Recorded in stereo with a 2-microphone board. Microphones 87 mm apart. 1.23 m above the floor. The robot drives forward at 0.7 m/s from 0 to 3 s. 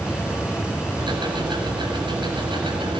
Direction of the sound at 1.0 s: 60° right (ahead or behind).